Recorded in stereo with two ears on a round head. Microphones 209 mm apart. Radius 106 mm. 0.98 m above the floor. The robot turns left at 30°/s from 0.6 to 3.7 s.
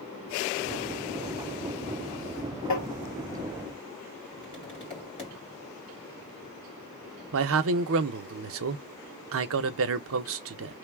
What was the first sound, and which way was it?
Tapping, 80° left.